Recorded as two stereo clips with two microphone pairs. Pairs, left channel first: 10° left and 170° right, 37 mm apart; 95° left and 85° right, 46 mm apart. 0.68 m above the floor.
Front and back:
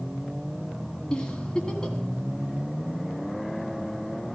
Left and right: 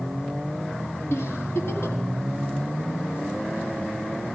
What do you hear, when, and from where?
1.1 s a giggle: 80° left, 1.5 m